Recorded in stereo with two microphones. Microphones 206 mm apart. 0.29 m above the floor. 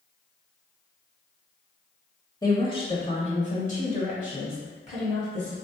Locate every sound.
2.4 s a woman speaking: 20° left (ahead or behind), 0.9 m; by 5.5 s 35° left (ahead or behind), 2 m